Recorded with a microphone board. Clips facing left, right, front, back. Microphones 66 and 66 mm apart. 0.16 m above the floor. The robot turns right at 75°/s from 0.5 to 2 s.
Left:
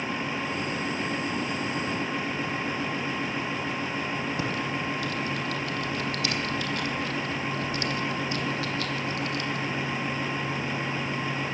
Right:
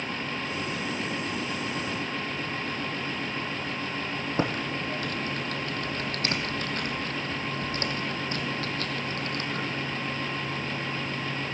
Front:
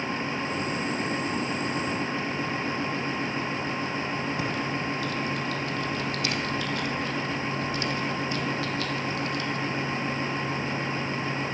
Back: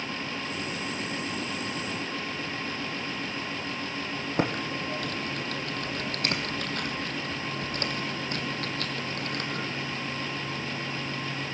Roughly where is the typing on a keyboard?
Behind right.